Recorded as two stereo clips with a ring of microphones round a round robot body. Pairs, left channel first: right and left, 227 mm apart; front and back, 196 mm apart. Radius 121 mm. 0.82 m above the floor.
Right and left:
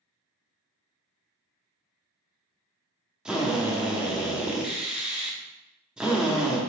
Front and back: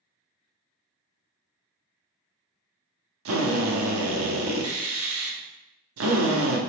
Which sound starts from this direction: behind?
A drill, at 3.2 s.